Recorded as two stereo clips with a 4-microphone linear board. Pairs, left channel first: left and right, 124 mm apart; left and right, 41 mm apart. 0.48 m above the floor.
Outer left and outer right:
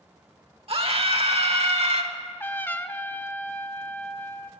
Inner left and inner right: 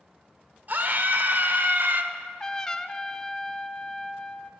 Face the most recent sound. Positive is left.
turn(degrees=15)  # may be behind; listen again after turning